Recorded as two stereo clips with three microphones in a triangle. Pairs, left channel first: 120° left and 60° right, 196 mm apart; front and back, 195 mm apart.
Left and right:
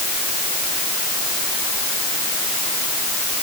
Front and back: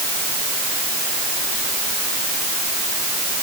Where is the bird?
No bird in this recording.